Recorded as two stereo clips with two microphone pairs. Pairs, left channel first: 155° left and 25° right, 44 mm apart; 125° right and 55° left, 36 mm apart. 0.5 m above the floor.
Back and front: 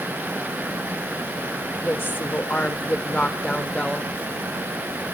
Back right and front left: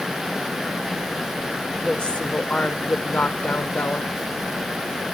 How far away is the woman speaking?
About 1.8 m.